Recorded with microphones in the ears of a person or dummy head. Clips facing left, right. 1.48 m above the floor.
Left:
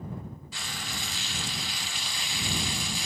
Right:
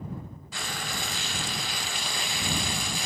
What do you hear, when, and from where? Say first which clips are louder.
0.5 s frying: right 7 dB; 30° right (ahead or behind)